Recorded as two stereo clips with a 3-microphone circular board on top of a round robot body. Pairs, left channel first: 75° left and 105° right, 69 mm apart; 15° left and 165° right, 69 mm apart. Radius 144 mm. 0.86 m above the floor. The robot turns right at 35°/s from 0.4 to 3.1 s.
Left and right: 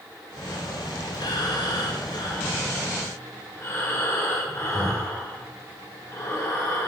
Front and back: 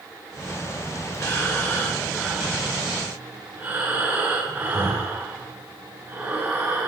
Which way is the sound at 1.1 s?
60° left.